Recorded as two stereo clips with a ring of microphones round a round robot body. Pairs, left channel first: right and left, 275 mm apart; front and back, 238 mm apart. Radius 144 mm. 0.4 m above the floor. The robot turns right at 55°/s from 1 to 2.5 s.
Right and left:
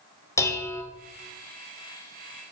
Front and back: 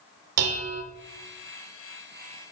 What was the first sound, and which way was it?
Dishes clattering, 170° right.